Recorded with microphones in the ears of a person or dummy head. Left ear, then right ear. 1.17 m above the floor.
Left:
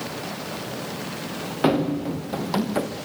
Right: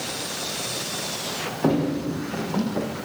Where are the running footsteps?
75° left (ahead or behind), 5 m.